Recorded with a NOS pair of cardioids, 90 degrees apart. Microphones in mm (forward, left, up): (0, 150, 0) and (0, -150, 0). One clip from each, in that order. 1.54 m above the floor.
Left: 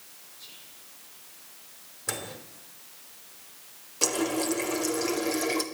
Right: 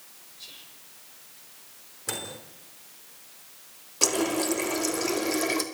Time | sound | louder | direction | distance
0.4 | whispering | right 4 dB | 45° right | 7 m
2.1 | a microwave | right 1 dB | straight ahead | 3.5 m
4.0 | a running tap | right 2 dB | 20° right | 2.5 m